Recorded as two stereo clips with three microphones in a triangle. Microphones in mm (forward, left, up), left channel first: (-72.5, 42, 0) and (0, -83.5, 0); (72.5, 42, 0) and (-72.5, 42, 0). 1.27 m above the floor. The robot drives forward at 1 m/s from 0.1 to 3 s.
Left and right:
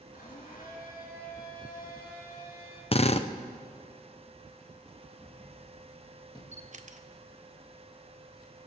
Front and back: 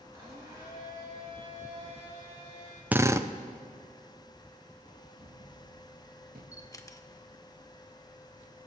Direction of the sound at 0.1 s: 110° left.